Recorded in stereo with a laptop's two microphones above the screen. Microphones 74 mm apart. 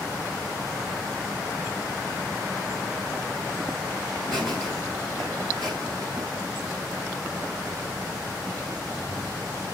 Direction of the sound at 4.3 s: 85° right.